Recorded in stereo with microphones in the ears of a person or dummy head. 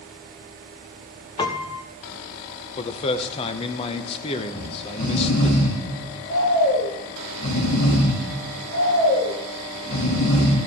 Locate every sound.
1.4 s a piano: 25° left (ahead or behind), 0.8 m
2.8 s a man speaking: 30° left (ahead or behind), 0.7 m
4.5 s snoring: 65° left (ahead or behind), 2.5 m